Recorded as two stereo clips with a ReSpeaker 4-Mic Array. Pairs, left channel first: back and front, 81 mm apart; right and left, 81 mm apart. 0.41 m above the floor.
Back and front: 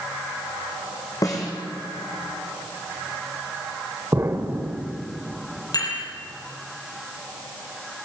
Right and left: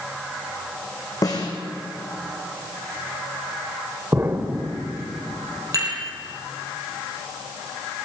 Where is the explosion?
40° left, 1.6 m.